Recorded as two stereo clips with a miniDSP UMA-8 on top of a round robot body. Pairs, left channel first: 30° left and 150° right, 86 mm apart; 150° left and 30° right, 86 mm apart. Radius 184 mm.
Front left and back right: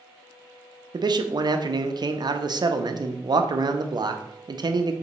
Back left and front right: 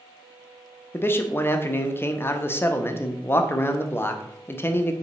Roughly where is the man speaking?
Behind right.